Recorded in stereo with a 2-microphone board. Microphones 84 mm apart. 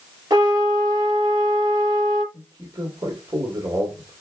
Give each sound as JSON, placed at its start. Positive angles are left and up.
{"t": 0.3, "sound": "a trumpet", "side_deg": -45, "distance_m": 5.0}
{"t": 2.3, "sound": "a man speaking", "side_deg": -50, "distance_m": 2.0}